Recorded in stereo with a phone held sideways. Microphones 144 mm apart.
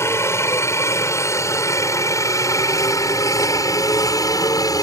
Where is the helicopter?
20° left (ahead or behind); by 4.8 s 25° left (ahead or behind).